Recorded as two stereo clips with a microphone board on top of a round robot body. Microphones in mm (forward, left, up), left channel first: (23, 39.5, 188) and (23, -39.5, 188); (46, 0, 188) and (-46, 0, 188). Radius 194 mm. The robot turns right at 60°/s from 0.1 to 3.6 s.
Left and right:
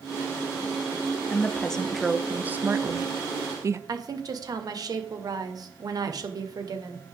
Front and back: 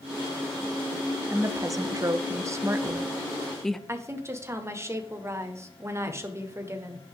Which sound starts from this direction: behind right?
A woman speaking, at 3.9 s.